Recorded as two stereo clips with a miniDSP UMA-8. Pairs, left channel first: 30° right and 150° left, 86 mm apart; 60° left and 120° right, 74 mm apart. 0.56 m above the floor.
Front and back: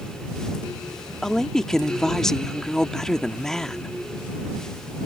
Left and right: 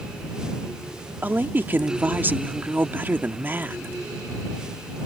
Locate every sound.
1.2 s a woman speaking: 105° right